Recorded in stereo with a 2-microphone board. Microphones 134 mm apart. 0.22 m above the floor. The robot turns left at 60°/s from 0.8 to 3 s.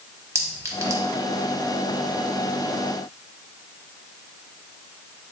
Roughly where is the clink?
Right.